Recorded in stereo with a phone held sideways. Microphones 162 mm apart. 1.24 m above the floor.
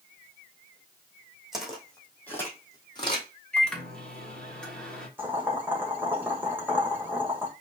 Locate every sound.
1.5 s footsteps: centre (ahead or behind), 2.5 m; by 3.3 s 35° left (ahead or behind), 2 m
3.5 s a microwave: 5° left (ahead or behind), 1.3 m
5.2 s boiling: 10° right (ahead or behind), 1.5 m